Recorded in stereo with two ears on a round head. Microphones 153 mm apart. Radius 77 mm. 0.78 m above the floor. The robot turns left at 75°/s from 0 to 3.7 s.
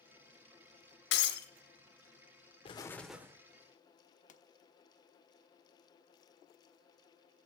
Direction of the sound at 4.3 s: 45° left (ahead or behind).